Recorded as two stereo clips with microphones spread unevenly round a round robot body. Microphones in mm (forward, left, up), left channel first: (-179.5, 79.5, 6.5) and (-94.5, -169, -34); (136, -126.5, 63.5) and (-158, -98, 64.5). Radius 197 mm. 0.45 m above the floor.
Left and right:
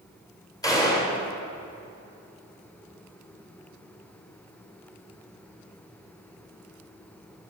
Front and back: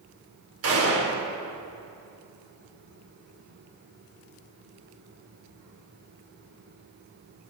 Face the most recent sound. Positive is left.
turn(degrees=-170)